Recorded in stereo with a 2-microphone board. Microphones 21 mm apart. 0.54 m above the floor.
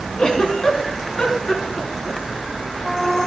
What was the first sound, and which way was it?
A giggle, 40° left (ahead or behind).